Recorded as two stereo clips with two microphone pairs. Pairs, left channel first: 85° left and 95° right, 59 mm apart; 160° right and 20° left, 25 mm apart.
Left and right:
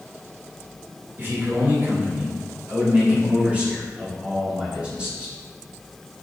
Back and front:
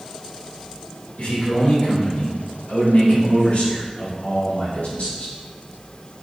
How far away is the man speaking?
About 2.5 m.